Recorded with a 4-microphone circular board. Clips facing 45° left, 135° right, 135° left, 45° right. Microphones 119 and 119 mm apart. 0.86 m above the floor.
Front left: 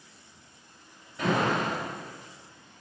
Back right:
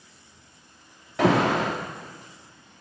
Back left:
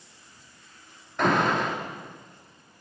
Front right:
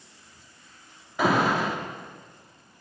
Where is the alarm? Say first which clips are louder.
Back right 6 dB, front right 1 dB; 130° right, 1.7 m.